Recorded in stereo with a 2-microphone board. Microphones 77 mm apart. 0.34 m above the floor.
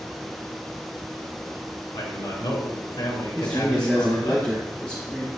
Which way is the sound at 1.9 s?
75° left (ahead or behind).